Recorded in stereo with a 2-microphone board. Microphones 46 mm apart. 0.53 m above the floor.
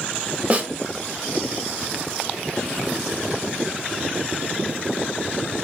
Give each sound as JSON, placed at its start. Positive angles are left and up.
{"t": 0.5, "sound": "a snare drum", "side_deg": -30, "distance_m": 0.6}